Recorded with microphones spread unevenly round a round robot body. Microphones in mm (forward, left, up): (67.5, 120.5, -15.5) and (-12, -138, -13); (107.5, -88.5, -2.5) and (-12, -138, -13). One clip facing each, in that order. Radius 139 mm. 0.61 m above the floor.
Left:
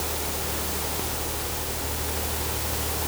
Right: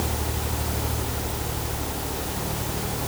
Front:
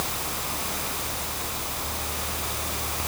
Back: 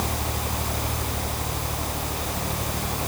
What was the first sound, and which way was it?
Only background noise.